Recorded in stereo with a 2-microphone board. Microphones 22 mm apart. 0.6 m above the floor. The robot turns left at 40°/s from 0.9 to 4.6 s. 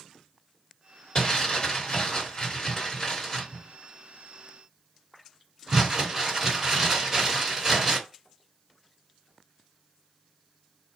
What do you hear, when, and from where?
1.1 s crumpling: 45° left (ahead or behind), 1.6 m; by 8.0 s 20° right (ahead or behind), 1.6 m